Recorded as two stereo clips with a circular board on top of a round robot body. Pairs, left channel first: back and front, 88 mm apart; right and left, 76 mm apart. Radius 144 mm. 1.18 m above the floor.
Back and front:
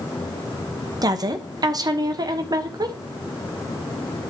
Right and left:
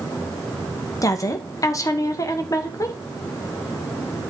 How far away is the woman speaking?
About 1.3 m.